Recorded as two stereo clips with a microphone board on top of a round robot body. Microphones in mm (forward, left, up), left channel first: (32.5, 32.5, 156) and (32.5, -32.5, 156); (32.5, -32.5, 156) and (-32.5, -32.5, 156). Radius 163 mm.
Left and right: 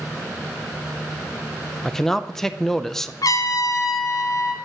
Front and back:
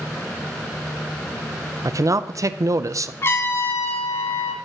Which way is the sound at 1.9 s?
170° left.